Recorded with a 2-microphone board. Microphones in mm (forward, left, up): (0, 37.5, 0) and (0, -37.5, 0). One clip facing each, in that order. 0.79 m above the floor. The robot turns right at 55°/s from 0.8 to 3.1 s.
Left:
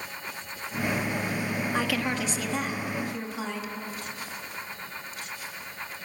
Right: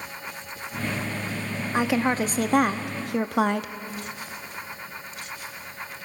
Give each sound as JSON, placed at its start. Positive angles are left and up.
{"t": 1.7, "sound": "a woman speaking", "azimuth_deg": -160, "distance_m": 1.0}